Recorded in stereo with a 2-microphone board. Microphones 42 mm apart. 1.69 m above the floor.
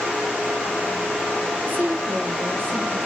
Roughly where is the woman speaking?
Right.